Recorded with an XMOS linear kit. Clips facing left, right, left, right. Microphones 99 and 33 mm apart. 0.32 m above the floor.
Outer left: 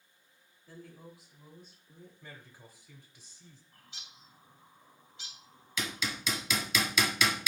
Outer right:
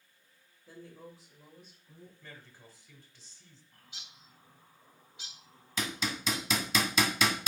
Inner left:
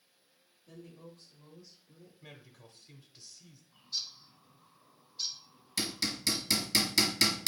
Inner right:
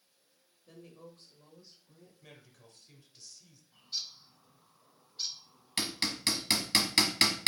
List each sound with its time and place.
0.7 s a woman speaking: 20° right (ahead or behind), 1.0 m; by 2.1 s 40° right (ahead or behind), 1.9 m
2.2 s a man speaking: 15° left (ahead or behind), 0.9 m
3.7 s a bird: 20° right (ahead or behind), 1.5 m
5.8 s hammering: 40° right (ahead or behind), 1.0 m